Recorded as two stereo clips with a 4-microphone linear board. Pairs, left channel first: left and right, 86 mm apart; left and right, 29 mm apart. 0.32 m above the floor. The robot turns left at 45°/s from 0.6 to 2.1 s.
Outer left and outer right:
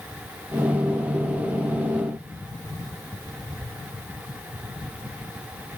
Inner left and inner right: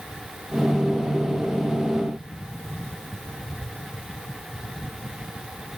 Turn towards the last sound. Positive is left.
No sound to turn to.